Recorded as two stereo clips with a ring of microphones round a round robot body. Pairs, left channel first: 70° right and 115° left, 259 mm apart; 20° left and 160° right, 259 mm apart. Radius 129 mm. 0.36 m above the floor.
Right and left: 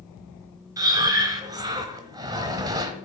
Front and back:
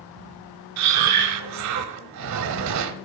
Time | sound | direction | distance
0.8 | breathing | 170° right | 0.7 m